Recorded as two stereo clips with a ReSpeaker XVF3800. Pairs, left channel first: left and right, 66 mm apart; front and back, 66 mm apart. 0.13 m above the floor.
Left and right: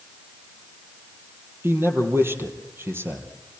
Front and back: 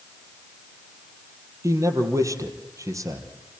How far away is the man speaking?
About 3 m.